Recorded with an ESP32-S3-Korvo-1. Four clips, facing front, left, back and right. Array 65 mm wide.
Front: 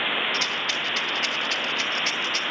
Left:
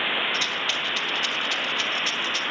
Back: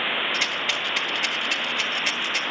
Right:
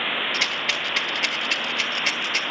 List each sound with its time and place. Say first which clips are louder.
0.3 s a rattle: right 1 dB, back 1 dB; 105° right, 1.5 m